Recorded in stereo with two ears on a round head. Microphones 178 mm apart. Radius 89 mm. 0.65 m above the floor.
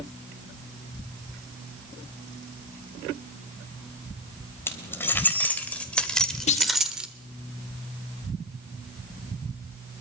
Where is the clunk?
35° left (ahead or behind), 1.6 m.